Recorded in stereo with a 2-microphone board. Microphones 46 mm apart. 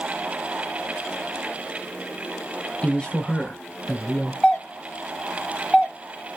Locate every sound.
2.8 s a man speaking: 25° left (ahead or behind), 1.4 m
4.4 s a doorbell: 10° left (ahead or behind), 1.6 m